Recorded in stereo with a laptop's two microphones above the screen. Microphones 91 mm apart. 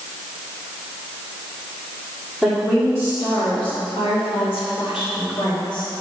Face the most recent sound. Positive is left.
turn(degrees=60)  # may be behind; listen again after turning